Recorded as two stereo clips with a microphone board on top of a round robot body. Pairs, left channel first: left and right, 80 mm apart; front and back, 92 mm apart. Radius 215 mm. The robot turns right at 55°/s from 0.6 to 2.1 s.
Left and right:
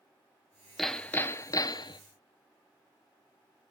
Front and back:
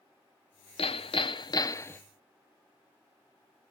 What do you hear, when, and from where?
0.8 s hammering: straight ahead, 0.8 m; by 2.0 s 70° left, 0.8 m